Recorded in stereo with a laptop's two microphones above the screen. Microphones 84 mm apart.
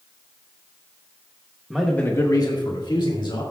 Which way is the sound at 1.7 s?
5° right (ahead or behind).